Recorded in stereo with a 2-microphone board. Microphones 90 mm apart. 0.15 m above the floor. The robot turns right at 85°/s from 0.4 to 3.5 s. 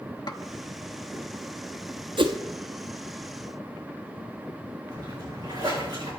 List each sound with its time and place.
0.3 s a snare drum: 55° left (ahead or behind), 0.9 m
2.2 s a whoosh: 70° right (ahead or behind), 1.1 m; by 2.4 s 80° right, 1.1 m
4.9 s a splash: 55° right (ahead or behind), 6 m